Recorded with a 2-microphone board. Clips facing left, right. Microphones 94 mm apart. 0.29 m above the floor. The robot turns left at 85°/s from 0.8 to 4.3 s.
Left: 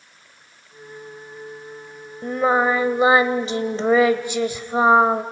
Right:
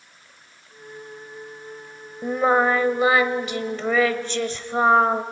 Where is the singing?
10° right (ahead or behind), 1.0 m; by 5.2 s 10° left (ahead or behind), 1.0 m.